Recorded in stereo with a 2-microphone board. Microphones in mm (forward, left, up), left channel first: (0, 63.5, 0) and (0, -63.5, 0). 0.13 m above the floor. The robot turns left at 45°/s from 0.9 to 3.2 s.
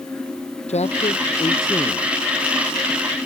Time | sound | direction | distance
0.7 | a man speaking | 65° left | ?